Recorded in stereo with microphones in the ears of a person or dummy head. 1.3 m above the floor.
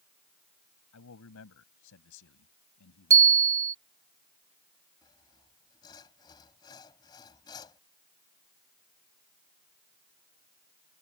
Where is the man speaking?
70° left (ahead or behind).